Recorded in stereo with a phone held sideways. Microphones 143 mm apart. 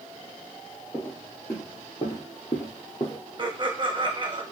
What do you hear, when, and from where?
0.9 s footsteps: 25° left (ahead or behind), 2.0 m
3.4 s laughter: 35° right (ahead or behind), 0.9 m